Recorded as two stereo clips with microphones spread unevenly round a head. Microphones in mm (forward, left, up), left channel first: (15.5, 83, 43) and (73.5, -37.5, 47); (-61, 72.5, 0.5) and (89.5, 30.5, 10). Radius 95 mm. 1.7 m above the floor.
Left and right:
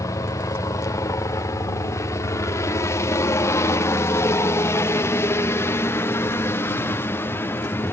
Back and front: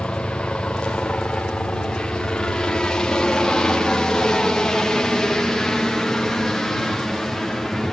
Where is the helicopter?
90° left; by 7.9 s 80° left.